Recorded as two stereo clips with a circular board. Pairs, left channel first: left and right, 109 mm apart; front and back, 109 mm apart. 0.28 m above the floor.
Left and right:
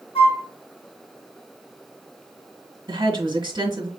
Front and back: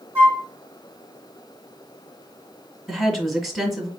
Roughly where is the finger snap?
No finger snap in this recording.